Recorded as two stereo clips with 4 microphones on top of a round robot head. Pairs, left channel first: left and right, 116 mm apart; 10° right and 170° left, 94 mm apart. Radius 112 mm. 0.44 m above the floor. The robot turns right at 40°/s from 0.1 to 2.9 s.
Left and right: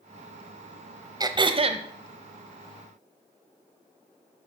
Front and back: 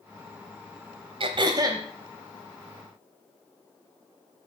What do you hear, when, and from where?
1.2 s throat clearing: 150° right, 0.8 m; by 1.8 s 125° right, 0.8 m